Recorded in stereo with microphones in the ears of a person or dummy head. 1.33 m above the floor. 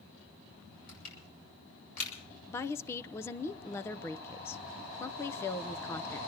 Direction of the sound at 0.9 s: 45° left (ahead or behind).